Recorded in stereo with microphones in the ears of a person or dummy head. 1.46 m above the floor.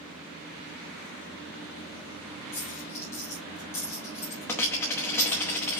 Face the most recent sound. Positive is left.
turn(degrees=10)  # may be behind; listen again after turning